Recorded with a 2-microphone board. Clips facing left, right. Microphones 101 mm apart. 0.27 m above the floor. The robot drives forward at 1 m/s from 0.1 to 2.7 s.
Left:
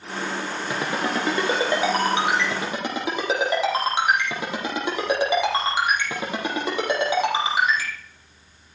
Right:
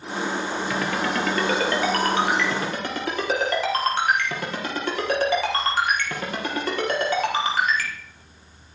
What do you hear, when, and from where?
0.7 s a ringtone: 25° left (ahead or behind), 2.5 m; by 7.9 s 15° left (ahead or behind), 4.5 m